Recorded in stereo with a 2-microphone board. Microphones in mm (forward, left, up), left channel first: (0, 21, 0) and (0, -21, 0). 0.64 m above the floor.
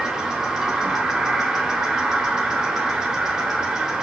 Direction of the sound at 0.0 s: 10° right (ahead or behind).